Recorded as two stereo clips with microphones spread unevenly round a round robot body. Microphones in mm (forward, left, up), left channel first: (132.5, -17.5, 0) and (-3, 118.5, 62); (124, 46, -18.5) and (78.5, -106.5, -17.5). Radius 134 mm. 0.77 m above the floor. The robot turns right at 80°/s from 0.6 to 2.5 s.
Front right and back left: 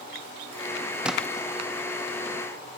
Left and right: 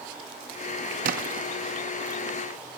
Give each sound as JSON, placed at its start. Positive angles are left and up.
{"t": 1.0, "sound": "a splash", "azimuth_deg": -130}